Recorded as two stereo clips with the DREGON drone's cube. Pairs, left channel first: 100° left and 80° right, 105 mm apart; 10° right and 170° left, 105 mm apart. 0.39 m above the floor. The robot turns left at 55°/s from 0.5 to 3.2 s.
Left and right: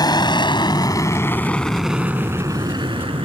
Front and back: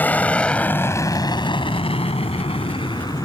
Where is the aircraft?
60° left; by 3.3 s 60° right.